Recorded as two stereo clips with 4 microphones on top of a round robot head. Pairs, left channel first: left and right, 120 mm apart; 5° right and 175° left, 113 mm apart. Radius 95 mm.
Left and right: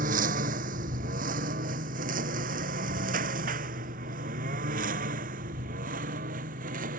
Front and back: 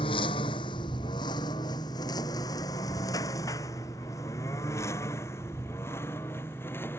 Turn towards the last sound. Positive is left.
turn(degrees=-85)